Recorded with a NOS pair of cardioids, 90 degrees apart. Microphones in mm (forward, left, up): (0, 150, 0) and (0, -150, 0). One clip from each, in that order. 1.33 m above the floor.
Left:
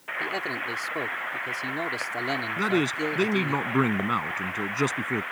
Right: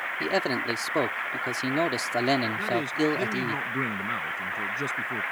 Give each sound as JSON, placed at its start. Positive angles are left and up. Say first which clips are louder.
{"t": 0.2, "sound": "a man speaking", "louder": "right 3 dB", "azimuth_deg": -40}
{"t": 2.6, "sound": "a man speaking", "louder": "left 1 dB", "azimuth_deg": 60}